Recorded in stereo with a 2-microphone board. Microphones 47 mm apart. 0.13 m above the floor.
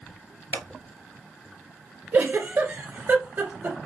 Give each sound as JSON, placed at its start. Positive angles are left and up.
{"t": 0.5, "sound": "scissors", "side_deg": 55, "distance_m": 0.7}
{"t": 2.1, "sound": "a giggle", "side_deg": -45, "distance_m": 1.8}